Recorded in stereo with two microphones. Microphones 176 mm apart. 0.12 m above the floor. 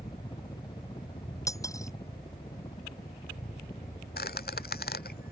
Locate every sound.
0.0 s a helicopter: 25° left (ahead or behind)
1.5 s cutlery clinking: 20° left (ahead or behind)
4.2 s a squeak: 65° left (ahead or behind)